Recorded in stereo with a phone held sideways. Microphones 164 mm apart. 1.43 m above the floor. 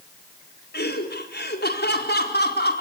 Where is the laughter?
85° left, 4.5 m.